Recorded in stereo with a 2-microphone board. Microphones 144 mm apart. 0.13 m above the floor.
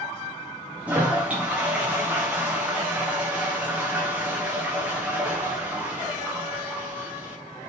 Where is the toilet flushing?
10° right (ahead or behind), 5 m.